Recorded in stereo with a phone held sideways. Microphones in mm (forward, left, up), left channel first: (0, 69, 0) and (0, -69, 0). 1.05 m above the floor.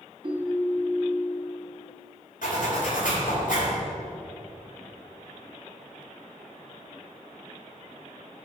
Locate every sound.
0.2 s a ringtone: 35° right (ahead or behind), 1.1 m
2.4 s a zipper: 80° left, 2.5 m